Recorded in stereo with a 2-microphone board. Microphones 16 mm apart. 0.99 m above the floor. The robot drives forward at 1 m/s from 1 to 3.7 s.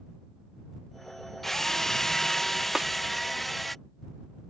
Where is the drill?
20° left (ahead or behind); by 3.8 s 10° left (ahead or behind).